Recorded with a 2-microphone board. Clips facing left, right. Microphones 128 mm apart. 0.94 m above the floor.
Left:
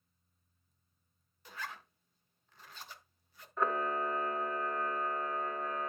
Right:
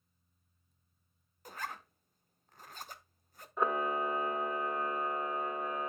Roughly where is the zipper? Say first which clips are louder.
Right 3 dB; right.